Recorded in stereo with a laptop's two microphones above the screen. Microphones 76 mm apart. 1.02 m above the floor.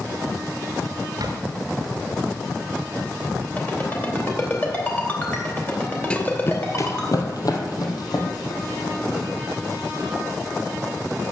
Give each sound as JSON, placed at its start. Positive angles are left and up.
{"t": 1.2, "sound": "a drawer", "side_deg": -60, "distance_m": 1.8}
{"t": 3.6, "sound": "a ringtone", "side_deg": 30, "distance_m": 2.5}
{"t": 6.1, "sound": "running footsteps", "side_deg": 15, "distance_m": 1.0}